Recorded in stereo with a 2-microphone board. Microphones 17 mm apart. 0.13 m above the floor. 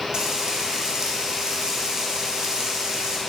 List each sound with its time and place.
0.1 s frying: 45° right (ahead or behind), 1.6 m